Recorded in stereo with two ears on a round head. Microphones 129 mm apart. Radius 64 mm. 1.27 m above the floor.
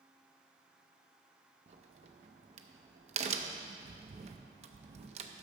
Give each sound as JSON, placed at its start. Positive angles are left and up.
{"t": 1.7, "sound": "a crack", "side_deg": -45, "distance_m": 0.5}